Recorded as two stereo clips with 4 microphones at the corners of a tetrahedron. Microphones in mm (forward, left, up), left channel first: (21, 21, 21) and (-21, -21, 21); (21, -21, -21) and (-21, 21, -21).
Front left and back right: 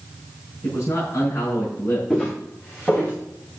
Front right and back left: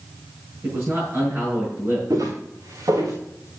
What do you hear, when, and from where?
0.6 s a man speaking: 80° left, 6 m
2.1 s footsteps: 115° left, 4 m; by 3.2 s 105° left, 4 m